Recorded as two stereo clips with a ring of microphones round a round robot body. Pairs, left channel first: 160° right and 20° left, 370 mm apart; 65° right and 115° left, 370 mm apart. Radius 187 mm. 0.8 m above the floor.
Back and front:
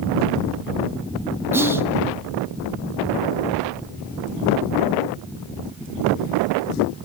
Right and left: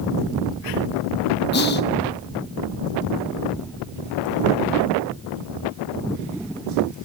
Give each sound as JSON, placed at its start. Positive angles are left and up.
{"t": 1.5, "sound": "whispering", "azimuth_deg": -55, "distance_m": 1.1}